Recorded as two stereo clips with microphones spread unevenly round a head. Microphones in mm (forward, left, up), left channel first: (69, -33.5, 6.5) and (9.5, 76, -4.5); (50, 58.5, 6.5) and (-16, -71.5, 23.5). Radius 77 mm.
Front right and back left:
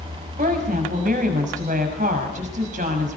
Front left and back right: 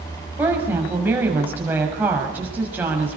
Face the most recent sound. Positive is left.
turn(degrees=165)